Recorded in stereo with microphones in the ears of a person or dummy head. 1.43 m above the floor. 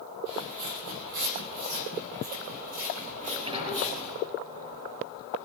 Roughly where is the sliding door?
Right.